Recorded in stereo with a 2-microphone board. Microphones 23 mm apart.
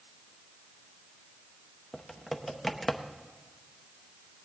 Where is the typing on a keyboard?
10° left (ahead or behind), 0.7 m.